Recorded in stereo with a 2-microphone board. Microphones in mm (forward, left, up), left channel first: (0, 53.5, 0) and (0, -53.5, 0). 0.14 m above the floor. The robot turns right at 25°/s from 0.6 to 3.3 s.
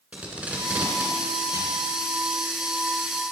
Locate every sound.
0.1 s tape being pulled: 10° right (ahead or behind), 1.4 m; by 1.8 s 30° right (ahead or behind), 1.4 m